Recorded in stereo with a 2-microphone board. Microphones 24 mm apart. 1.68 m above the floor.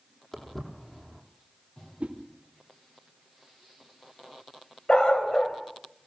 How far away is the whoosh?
About 4.5 m.